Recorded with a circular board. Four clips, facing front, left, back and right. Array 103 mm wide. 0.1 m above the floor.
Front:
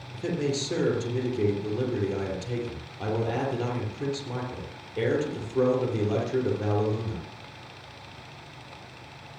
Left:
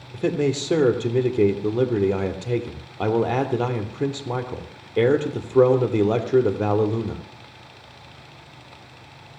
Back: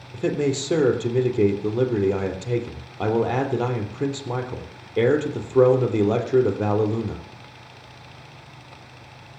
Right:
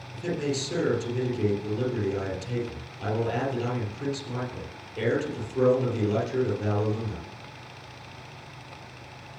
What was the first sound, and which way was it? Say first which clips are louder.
A man speaking: left 7 dB, back 6 dB; 125° left.